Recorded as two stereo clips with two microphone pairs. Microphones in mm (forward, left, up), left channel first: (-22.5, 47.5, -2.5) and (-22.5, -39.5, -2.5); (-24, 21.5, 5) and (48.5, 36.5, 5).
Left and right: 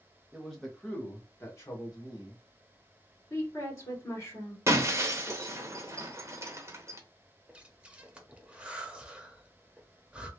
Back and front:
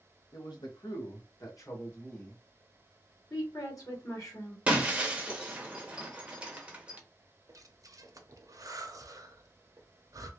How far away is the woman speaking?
About 1.6 m.